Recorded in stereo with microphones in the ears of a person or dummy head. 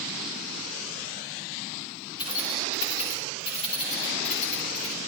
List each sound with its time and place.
2.2 s keys jangling: 25° left (ahead or behind), 8.5 m; by 5.0 s 35° left (ahead or behind), 8 m